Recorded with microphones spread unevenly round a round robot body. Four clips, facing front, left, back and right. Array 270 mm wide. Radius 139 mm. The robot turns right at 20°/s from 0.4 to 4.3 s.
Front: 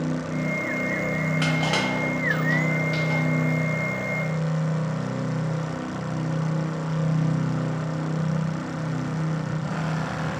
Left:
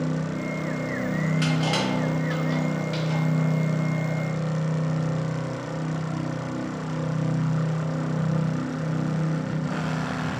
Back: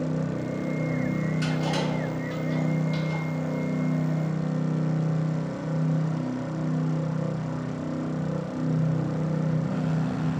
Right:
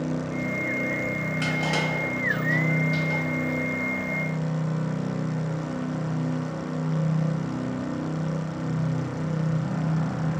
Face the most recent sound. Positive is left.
turn(degrees=50)